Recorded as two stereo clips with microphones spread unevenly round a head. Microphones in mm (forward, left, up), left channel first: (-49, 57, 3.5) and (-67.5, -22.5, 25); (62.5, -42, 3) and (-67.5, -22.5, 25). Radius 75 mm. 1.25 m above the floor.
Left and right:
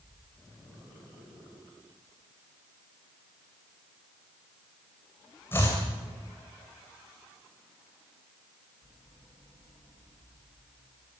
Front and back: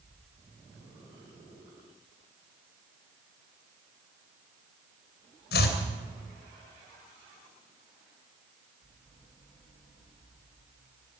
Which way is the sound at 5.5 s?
5° right.